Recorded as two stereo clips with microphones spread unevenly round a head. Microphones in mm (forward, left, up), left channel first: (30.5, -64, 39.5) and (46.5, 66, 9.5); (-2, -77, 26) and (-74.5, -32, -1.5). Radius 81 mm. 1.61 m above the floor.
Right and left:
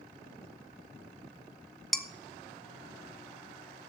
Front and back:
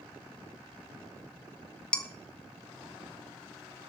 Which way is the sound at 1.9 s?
35° right.